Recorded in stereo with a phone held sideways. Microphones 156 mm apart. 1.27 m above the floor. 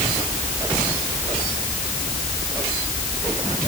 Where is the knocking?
I don't hear knocking.